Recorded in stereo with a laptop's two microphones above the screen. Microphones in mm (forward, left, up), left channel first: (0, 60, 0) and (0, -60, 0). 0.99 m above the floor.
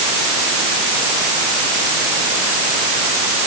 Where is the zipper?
I don't hear a zipper.